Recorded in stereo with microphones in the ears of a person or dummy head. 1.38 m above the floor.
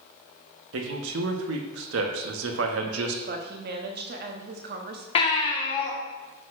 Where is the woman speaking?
50° right (ahead or behind), 0.9 m.